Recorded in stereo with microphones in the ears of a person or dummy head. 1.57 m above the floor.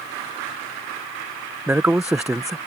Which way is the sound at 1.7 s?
10° right (ahead or behind).